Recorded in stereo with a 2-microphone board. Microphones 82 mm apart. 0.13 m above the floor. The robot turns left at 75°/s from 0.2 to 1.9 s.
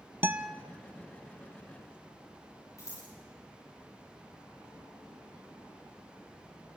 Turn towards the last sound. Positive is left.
turn(degrees=40)  # may be behind; listen again after turning